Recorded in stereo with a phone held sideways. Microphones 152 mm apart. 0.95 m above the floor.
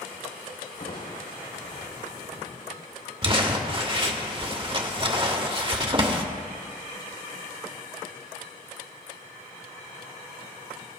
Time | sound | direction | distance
0.8 | crushing | 80° left | 3.5 m
3.2 | crumpling | 35° right (ahead or behind) | 1.4 m